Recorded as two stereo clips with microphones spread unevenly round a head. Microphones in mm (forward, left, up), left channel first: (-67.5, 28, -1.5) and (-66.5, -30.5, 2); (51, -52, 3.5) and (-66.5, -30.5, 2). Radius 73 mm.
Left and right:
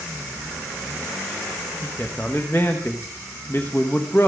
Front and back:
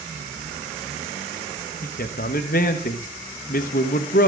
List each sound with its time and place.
1.8 s a man speaking: 15° left, 1.0 m